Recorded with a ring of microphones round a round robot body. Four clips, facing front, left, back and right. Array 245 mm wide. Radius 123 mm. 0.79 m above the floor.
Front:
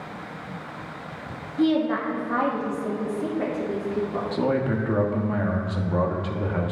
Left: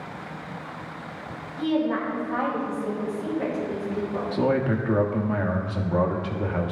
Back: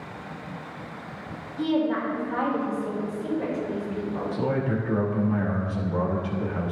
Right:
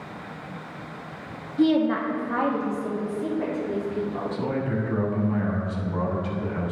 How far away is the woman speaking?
About 1.6 m.